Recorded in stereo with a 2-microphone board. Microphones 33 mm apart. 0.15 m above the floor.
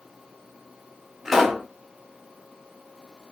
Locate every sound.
1.2 s a pop: 10° right (ahead or behind), 1.1 m